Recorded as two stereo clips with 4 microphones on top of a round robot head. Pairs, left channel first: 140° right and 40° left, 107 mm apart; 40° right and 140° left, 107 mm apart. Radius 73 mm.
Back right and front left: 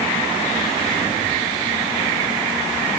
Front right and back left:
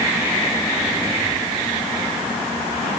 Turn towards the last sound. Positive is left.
No sound to turn to.